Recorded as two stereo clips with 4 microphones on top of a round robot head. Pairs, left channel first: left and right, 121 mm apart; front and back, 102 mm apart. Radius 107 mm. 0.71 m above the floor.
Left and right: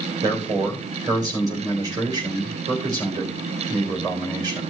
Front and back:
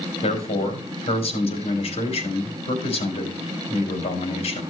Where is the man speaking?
30° right, 3.5 m.